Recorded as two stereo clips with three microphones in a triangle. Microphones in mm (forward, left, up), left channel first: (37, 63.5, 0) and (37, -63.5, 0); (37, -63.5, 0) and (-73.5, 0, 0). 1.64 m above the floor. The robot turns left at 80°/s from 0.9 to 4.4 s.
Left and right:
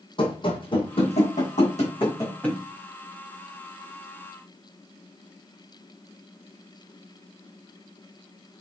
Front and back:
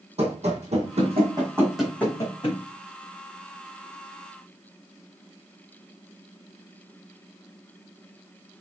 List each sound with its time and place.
0.2 s running footsteps: 130° left, 3.5 m; by 2.6 s straight ahead, 5 m